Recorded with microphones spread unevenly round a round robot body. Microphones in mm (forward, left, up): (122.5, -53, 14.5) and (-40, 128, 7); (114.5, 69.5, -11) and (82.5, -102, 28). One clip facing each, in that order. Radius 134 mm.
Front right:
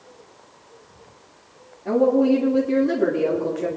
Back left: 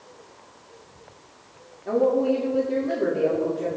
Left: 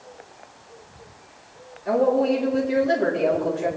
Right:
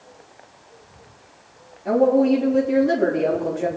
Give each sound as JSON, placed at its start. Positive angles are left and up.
{"t": 1.9, "sound": "a woman speaking", "azimuth_deg": -70, "distance_m": 1.6}